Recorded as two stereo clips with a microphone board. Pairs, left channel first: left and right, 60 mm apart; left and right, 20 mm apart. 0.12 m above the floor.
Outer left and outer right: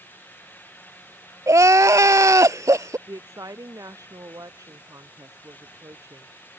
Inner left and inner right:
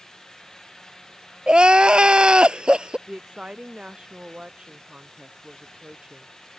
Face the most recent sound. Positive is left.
turn(degrees=-70)  # may be behind; listen again after turning